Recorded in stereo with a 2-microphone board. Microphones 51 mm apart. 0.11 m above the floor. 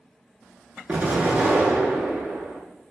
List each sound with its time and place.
0.9 s an explosion: 30° right (ahead or behind), 0.6 m